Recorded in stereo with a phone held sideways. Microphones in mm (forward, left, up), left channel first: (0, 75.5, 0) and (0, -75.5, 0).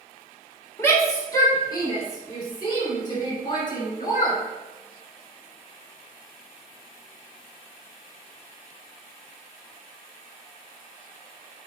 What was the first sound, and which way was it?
A shout, 20° left (ahead or behind).